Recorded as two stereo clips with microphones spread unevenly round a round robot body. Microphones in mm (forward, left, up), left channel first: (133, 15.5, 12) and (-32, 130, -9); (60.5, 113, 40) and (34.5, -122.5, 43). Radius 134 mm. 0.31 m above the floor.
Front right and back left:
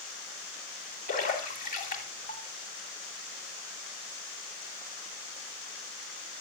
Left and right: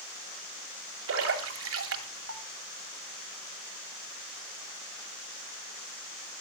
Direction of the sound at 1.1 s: 90° right.